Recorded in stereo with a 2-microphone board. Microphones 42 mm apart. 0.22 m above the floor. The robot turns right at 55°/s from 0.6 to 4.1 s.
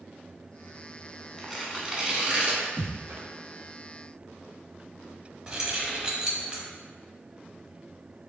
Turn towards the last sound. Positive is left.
turn(degrees=-20)  # may be behind; listen again after turning